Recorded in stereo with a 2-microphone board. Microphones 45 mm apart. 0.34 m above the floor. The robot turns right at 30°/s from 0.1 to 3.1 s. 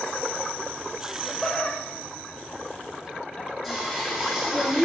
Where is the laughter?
20° left (ahead or behind), 1.2 m; by 3.5 s 25° left (ahead or behind), 1.2 m.